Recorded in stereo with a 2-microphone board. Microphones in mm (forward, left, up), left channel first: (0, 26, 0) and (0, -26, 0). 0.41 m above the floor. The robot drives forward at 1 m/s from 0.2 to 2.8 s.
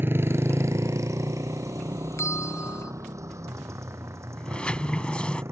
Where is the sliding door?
20° left (ahead or behind).